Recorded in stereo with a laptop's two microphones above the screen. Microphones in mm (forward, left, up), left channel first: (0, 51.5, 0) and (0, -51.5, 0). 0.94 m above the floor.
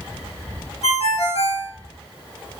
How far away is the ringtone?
About 0.8 m.